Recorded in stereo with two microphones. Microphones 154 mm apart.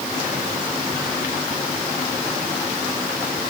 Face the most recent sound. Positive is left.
No sound to turn to.